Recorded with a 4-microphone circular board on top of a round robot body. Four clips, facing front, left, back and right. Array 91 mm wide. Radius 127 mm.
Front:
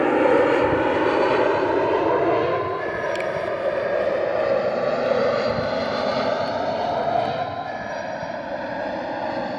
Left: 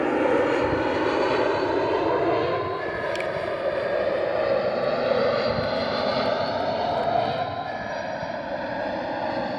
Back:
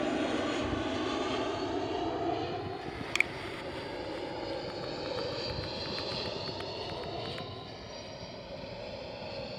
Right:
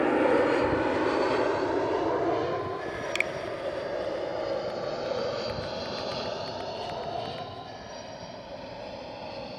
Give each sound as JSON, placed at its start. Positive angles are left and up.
{"t": 0.0, "sound": "an aircraft", "azimuth_deg": 5}
{"t": 3.1, "sound": "a finger snap", "azimuth_deg": -140}